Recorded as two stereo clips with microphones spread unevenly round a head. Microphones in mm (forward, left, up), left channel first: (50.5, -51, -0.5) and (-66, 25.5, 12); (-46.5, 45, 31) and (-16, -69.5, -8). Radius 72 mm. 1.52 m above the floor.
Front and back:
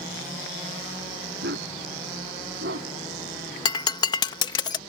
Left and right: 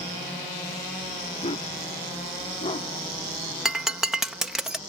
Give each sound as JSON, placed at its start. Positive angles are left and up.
{"t": 1.4, "sound": "a dog barking", "azimuth_deg": 140}
{"t": 3.6, "sound": "breaking glass", "azimuth_deg": 25}